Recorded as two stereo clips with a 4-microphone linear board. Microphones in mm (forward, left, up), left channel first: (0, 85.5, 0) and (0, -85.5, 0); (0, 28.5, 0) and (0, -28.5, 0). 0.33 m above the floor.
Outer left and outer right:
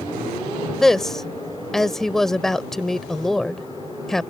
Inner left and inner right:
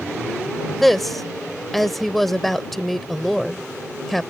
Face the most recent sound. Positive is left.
turn(degrees=0)  # may be behind; listen again after turning